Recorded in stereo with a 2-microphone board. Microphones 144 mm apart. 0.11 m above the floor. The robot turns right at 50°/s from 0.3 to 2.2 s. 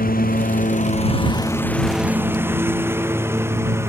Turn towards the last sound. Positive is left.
turn(degrees=-20)  # may be behind; listen again after turning